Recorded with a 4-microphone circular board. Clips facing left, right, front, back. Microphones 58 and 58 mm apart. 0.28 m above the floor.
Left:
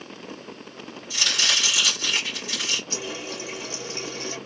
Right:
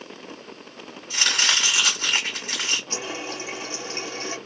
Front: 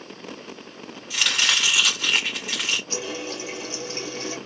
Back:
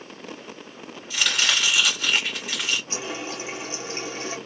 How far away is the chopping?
About 2 m.